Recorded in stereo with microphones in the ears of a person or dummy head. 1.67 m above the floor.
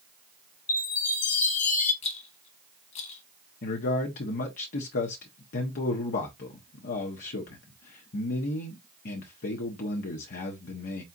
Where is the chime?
50° left (ahead or behind), 0.7 m.